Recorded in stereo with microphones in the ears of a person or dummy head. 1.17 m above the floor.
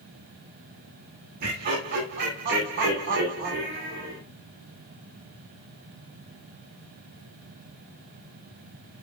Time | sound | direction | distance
1.4 | laughter | 50° right (ahead or behind) | 1.7 m